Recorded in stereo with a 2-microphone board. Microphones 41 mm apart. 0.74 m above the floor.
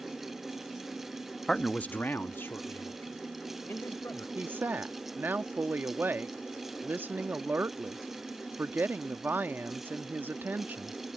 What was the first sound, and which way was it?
A man speaking, 10° left (ahead or behind).